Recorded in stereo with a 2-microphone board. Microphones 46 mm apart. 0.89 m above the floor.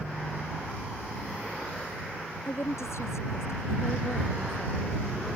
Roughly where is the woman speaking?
Left.